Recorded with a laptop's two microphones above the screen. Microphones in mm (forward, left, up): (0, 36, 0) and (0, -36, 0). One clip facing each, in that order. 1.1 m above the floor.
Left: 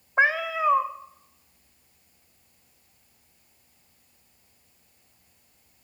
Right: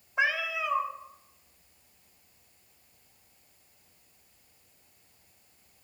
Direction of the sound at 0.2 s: 40° left (ahead or behind).